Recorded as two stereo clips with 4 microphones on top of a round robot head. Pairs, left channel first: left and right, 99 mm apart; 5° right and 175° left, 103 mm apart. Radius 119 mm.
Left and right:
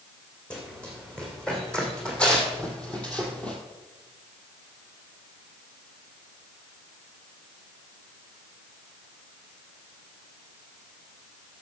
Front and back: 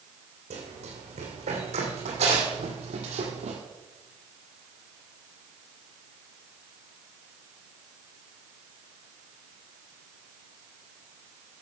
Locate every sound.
0.5 s running footsteps: 170° left, 3.5 m